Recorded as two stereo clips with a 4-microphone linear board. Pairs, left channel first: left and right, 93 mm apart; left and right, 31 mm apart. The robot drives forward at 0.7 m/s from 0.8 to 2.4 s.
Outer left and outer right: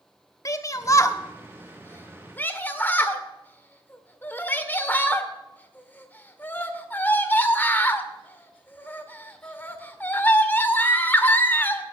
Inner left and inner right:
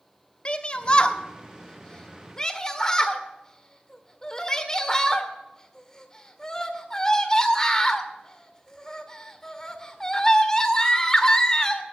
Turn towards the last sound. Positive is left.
turn(degrees=20)  # may be behind; listen again after turning